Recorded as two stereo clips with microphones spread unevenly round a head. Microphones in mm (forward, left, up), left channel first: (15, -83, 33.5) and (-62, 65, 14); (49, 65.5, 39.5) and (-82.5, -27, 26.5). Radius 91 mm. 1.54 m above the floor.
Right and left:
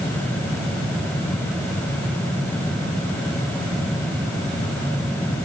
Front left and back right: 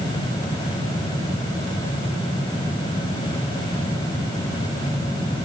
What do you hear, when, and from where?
Only background noise.